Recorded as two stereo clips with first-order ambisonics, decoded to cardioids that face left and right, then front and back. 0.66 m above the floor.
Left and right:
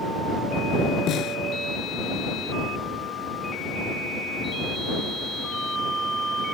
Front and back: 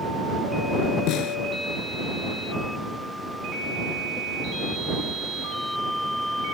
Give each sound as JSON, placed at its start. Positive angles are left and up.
{"t": 1.1, "sound": "a snare drum", "azimuth_deg": 40}